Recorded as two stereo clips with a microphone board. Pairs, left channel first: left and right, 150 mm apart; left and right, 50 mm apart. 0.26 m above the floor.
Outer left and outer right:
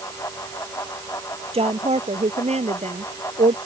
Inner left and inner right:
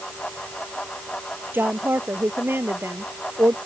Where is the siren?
I don't hear a siren.